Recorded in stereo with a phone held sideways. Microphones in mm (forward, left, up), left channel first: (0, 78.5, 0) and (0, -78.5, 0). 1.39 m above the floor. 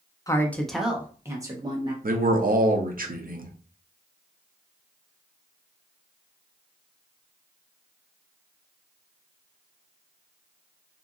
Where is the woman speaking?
20° left (ahead or behind), 0.6 m; by 1.9 s 30° right (ahead or behind), 1.1 m.